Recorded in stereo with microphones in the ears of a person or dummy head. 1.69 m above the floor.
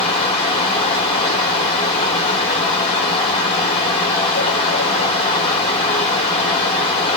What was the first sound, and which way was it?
A fan, 25° left (ahead or behind).